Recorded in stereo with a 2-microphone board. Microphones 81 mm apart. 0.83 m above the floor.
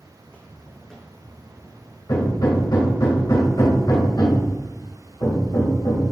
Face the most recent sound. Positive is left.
turn(degrees=55)  # may be behind; listen again after turning